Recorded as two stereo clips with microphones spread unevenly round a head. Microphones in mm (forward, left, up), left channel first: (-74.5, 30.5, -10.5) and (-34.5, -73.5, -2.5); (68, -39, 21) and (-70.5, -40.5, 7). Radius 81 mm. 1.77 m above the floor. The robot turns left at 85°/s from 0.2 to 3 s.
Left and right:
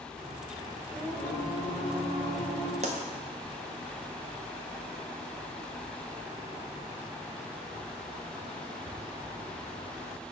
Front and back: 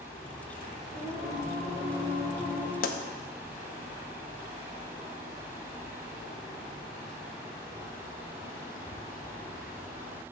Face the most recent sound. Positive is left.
turn(degrees=-35)